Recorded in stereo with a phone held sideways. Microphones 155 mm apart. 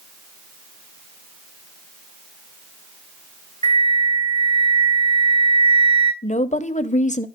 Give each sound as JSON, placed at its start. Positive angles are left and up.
{"t": 3.6, "sound": "a flute", "side_deg": -45, "distance_m": 2.5}
{"t": 6.2, "sound": "a woman speaking", "side_deg": 50, "distance_m": 0.7}